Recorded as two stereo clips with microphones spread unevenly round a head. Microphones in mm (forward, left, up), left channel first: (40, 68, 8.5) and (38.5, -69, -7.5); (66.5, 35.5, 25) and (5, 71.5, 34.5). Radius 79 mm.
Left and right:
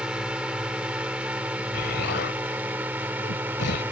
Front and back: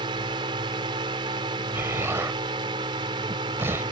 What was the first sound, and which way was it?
A drone, 175° right.